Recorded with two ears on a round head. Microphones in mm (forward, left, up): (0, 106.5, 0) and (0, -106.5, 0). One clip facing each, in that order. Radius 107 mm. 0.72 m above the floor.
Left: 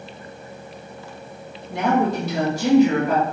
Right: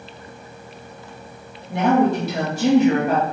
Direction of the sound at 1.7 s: 45° right (ahead or behind).